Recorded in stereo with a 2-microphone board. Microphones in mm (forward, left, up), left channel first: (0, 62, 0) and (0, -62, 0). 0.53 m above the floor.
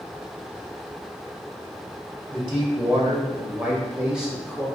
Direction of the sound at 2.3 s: 45° right (ahead or behind).